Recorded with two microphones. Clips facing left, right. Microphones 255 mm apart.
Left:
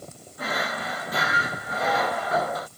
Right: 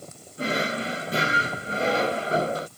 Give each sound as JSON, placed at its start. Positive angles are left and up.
{"t": 0.4, "sound": "a drawer", "side_deg": -30}